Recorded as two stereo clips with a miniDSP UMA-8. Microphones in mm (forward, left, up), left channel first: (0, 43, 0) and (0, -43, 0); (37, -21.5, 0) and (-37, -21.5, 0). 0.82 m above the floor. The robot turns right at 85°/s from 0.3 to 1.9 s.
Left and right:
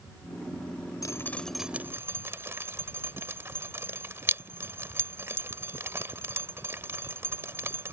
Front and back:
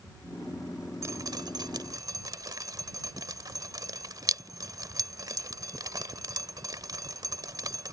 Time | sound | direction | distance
1.0 | dripping | 135° left | ?